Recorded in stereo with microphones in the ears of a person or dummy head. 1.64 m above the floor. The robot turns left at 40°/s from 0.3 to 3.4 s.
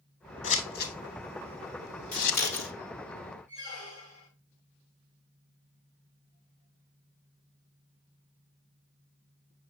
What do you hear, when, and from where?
0.4 s scissors: 40° left (ahead or behind), 1.5 m; by 2.4 s 60° left (ahead or behind), 1.5 m
2.1 s scissors: 45° left (ahead or behind), 1.7 m; by 2.7 s 65° left (ahead or behind), 1.7 m
3.5 s a squeak: 50° left (ahead or behind), 3 m